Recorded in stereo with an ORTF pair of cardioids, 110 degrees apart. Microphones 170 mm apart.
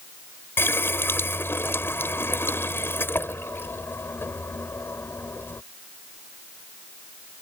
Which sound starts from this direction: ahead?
A running tap, at 0.6 s.